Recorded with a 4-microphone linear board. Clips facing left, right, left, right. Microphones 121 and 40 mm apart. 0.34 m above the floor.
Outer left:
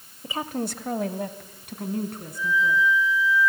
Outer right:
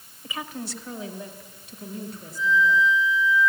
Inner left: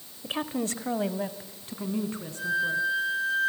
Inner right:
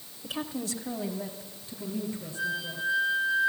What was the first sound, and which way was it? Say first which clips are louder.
A woman speaking: outer left 5 dB, inner left 4 dB; 25° left (ahead or behind).